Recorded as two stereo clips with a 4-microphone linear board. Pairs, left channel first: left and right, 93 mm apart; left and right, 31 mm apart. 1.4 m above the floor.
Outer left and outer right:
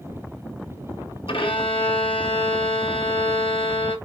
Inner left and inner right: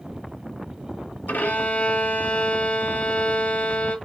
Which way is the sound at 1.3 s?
75° left (ahead or behind).